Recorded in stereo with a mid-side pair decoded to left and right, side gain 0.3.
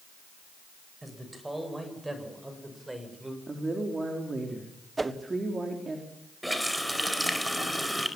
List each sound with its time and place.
1.0 s a man speaking: 25° right, 8.5 m; by 3.4 s 20° right, 6.5 m
3.5 s a woman speaking: 40° right, 4.5 m
5.0 s a whoosh: 35° right, 1.3 m
6.4 s a running tap: 5° right, 5 m